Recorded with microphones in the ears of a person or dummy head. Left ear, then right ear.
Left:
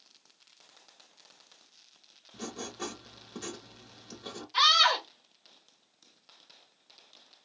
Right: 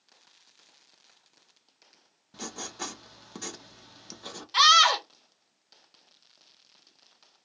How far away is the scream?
About 1.1 m.